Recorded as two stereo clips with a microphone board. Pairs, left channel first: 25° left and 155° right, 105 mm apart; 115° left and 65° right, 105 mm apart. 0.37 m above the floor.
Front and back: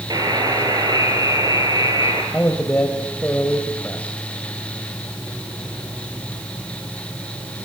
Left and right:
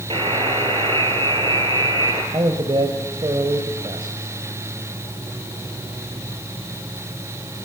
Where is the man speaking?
45° right, 1.9 m.